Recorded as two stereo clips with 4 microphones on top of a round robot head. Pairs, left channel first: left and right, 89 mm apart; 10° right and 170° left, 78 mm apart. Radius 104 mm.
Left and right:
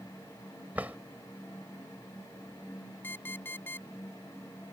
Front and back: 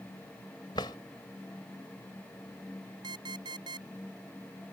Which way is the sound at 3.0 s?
155° left.